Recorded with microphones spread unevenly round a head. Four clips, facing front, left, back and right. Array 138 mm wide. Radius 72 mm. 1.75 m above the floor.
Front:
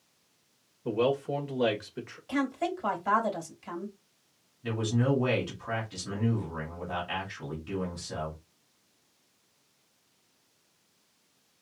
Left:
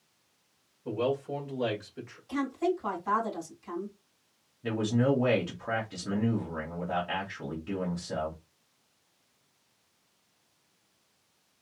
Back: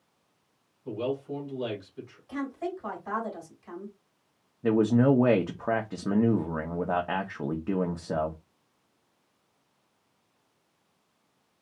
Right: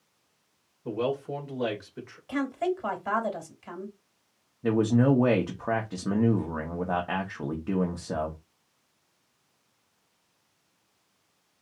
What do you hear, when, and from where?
0.8 s a man speaking: 15° right, 1.8 m
2.3 s a woman speaking: 35° right, 2.5 m
4.6 s a man speaking: 150° right, 0.9 m